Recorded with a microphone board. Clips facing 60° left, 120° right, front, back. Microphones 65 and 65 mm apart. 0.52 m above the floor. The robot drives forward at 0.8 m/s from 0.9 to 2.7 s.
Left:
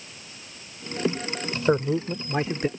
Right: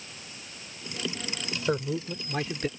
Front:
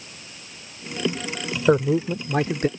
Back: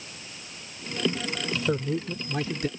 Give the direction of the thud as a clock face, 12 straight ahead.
I don't hear a thud.